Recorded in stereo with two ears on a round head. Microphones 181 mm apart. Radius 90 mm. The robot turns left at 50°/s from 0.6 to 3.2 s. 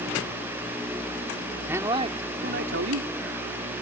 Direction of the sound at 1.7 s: 10° right.